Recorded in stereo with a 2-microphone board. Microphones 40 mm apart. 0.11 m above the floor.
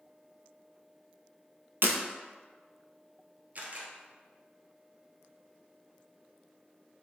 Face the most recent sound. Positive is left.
turn(degrees=-45)  # may be behind; listen again after turning